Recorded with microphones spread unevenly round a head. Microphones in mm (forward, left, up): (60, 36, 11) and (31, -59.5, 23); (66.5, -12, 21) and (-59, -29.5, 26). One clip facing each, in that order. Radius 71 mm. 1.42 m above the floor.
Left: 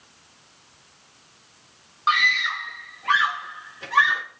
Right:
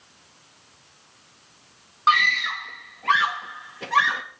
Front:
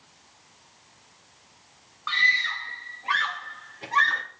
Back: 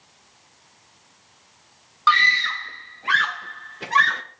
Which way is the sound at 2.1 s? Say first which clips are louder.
Right 2 dB, back 10 dB; 165° right.